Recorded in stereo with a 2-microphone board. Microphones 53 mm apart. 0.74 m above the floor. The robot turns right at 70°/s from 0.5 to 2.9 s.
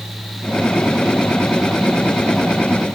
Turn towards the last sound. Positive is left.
No sound to turn to.